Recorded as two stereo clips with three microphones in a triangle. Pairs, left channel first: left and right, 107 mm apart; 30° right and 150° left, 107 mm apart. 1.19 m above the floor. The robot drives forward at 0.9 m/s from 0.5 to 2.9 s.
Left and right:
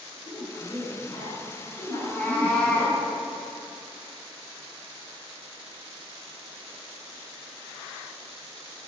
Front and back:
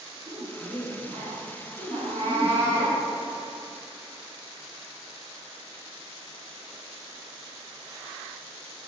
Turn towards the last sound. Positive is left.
turn(degrees=170)